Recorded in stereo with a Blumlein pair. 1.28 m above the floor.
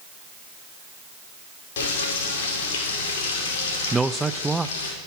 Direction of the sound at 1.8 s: 55° left.